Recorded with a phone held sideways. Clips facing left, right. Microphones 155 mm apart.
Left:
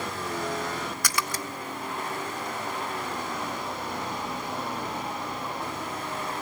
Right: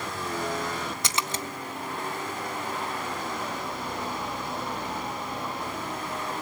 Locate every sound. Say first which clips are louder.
1.0 s a splash: even; 20° right (ahead or behind), 1.1 m